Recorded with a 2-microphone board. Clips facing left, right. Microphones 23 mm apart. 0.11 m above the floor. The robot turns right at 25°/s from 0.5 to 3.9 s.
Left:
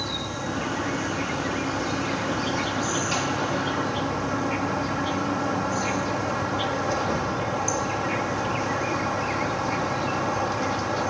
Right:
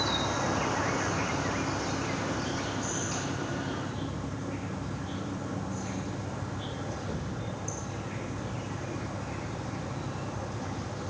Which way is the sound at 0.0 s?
20° right.